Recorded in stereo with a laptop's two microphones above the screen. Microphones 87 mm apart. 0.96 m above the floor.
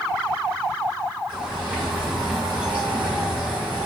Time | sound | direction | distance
1.3 | a bird | 15° right (ahead or behind) | 3 m